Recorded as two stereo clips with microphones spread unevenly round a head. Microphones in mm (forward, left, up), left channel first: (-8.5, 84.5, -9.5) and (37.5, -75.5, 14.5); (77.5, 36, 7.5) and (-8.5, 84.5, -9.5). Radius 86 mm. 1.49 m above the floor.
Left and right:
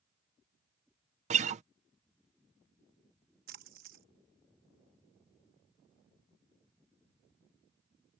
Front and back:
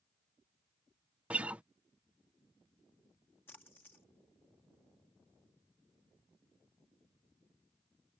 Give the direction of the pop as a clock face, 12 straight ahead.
No pop in this recording.